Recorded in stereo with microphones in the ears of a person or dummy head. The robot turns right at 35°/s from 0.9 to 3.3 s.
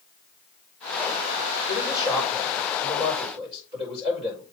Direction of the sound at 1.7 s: 150° left.